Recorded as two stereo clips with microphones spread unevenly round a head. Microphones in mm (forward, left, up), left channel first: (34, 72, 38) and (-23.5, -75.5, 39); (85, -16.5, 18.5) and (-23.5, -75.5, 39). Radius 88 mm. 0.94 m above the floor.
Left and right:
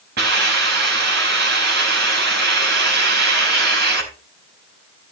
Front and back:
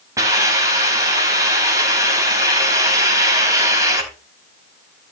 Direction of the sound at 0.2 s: 85° right.